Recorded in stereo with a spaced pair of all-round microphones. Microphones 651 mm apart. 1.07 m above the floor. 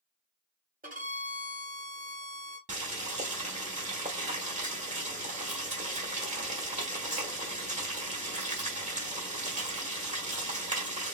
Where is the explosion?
I don't hear an explosion.